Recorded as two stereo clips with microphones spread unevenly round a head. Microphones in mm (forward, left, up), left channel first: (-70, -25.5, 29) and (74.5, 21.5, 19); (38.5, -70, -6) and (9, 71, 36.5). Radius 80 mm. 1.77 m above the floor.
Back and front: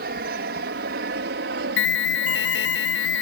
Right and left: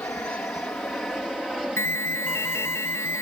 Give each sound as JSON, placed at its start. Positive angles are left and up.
{"t": 0.0, "sound": "an aircraft", "azimuth_deg": 0}
{"t": 1.8, "sound": "an alarm", "azimuth_deg": -155}